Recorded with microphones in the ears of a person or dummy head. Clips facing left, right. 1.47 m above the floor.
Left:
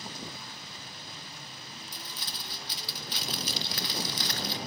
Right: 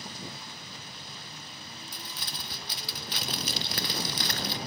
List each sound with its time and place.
1.9 s crumpling: 50° right (ahead or behind), 0.8 m